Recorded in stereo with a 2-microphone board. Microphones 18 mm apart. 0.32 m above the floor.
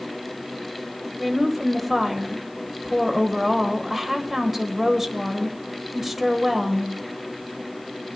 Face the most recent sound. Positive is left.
turn(degrees=-10)  # may be behind; listen again after turning